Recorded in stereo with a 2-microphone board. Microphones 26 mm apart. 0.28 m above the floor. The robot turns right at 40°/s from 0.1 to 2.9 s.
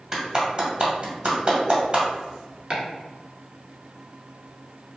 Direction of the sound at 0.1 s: 20° right (ahead or behind).